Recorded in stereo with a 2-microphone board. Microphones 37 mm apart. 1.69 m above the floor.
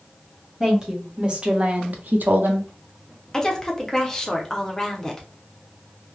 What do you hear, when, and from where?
0.6 s a woman speaking: 20° right (ahead or behind), 1.1 m; by 2.7 s 70° right (ahead or behind), 0.7 m
3.3 s a woman speaking: 15° left (ahead or behind), 0.7 m